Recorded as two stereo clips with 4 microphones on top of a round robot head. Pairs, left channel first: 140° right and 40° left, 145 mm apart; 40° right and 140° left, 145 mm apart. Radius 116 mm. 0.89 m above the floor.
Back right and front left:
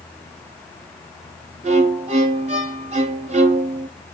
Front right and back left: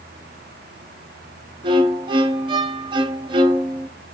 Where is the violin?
85° left, 0.7 m.